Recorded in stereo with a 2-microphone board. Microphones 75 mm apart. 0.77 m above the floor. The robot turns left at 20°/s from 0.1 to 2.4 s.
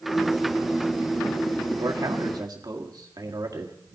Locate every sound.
1.8 s a man speaking: 60° right (ahead or behind), 1.6 m